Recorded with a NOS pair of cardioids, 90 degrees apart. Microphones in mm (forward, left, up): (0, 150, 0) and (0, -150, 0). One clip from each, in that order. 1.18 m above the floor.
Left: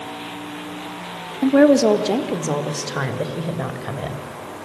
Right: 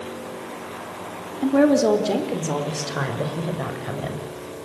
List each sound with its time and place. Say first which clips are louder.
1.4 s a woman speaking: left 4 dB; 25° left, 2.5 m; by 4.2 s 15° left, 5.5 m